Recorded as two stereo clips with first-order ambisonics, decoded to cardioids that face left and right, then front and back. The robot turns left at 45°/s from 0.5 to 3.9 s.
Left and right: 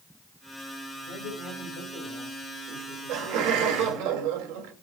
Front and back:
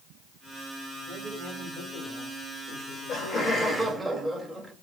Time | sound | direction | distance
1.1 | a man speaking | 95° left | 7.5 m
2.7 | laughter | 40° right | 3 m